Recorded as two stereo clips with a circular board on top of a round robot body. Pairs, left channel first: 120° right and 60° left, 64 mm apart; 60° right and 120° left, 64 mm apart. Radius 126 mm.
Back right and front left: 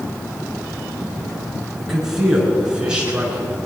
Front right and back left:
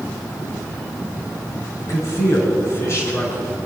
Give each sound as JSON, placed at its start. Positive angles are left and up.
{"t": 1.8, "sound": "a man speaking", "azimuth_deg": -25, "distance_m": 6.0}